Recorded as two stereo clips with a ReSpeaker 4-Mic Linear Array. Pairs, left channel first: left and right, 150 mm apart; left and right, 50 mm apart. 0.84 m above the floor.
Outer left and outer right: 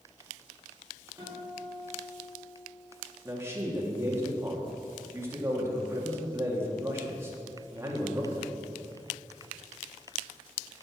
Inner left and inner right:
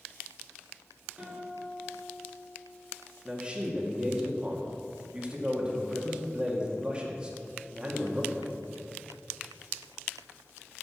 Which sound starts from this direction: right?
A guitar, at 1.2 s.